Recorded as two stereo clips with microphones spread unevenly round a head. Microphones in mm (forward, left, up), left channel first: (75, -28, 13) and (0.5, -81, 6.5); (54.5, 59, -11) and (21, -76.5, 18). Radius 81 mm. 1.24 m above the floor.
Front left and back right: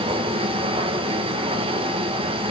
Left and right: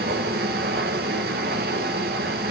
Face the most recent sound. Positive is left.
turn(degrees=-140)